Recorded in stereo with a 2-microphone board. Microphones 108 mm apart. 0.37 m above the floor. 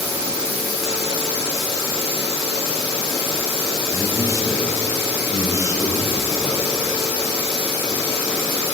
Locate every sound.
3.9 s a man speaking: 25° right (ahead or behind), 2 m